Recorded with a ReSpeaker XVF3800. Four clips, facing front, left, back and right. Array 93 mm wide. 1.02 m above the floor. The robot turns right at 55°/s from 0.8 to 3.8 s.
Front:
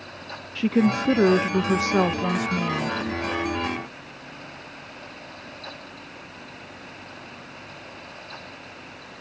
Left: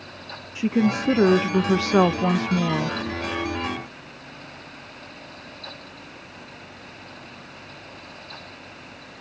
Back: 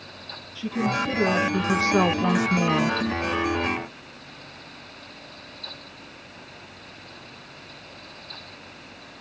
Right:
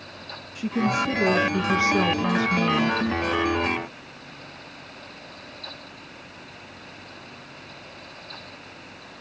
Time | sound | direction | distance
0.6 | a woman speaking | 30° left | 1.0 m